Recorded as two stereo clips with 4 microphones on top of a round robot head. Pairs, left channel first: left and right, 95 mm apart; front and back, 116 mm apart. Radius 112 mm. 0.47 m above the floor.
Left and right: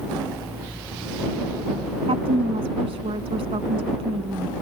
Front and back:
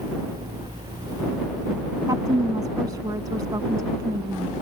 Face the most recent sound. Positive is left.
turn(degrees=-115)